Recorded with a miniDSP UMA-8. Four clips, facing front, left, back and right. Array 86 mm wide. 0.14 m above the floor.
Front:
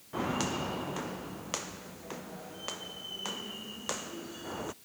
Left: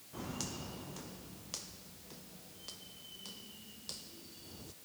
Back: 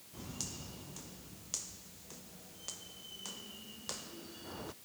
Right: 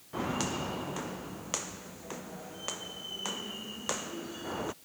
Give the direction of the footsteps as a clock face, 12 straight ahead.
1 o'clock.